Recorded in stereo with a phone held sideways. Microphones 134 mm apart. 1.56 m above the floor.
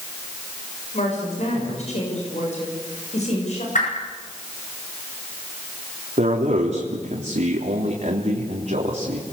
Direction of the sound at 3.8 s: 70° left (ahead or behind).